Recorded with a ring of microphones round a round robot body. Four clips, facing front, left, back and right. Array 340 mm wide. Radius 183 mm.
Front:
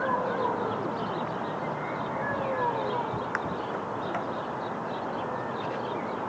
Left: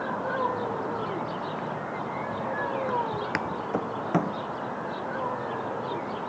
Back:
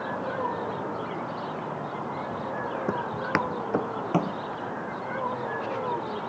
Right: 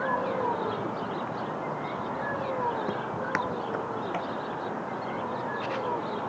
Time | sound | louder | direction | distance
2.9 | footsteps | left 2 dB, back 2 dB | 165° right | ?